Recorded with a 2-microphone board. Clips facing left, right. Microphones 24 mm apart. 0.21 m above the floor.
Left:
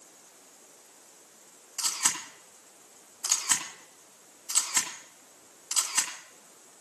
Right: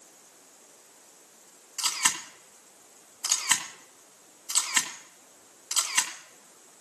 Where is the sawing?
I don't hear sawing.